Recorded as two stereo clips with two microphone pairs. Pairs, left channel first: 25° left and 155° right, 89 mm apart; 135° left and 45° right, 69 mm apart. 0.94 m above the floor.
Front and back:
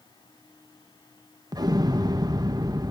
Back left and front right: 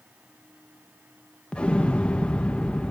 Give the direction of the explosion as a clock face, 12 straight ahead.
5 o'clock.